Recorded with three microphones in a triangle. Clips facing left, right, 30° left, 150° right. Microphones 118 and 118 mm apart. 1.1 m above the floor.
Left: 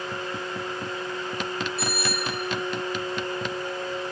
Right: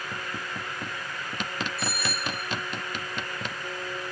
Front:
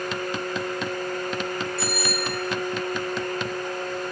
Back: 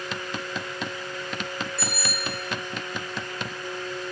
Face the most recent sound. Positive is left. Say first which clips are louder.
# left 3 dB, front 5 dB
turn(degrees=100)